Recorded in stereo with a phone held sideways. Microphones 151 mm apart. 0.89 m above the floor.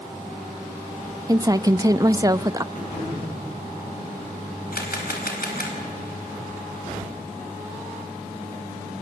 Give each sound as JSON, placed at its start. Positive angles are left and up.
{"t": 1.3, "sound": "a woman speaking", "side_deg": -25, "distance_m": 0.6}
{"t": 2.7, "sound": "throat clearing", "side_deg": 60, "distance_m": 9.5}
{"t": 4.7, "sound": "a camera shutter", "side_deg": 80, "distance_m": 4.5}